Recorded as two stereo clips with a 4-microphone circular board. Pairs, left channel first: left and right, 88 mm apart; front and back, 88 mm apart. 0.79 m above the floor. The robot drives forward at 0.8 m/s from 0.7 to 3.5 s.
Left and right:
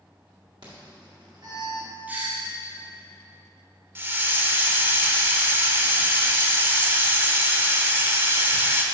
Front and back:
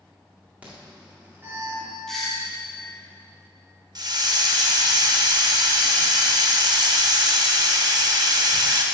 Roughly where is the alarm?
Right.